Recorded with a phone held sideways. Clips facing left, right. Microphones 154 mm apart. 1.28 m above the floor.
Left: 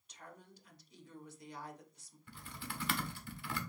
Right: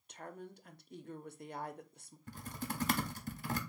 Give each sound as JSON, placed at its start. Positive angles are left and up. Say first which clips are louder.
{"t": 0.1, "sound": "a woman speaking", "louder": "right 8 dB", "side_deg": -55, "distance_m": 0.6}
{"t": 2.3, "sound": "typing on a keyboard", "louder": "right 6 dB", "side_deg": -40, "distance_m": 0.6}